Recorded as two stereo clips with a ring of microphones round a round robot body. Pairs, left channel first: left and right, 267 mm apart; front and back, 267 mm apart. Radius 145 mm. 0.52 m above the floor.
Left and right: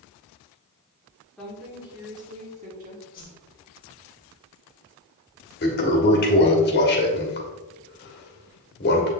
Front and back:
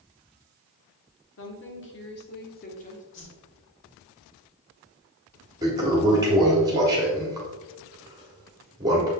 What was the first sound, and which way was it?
A woman speaking, 5° left.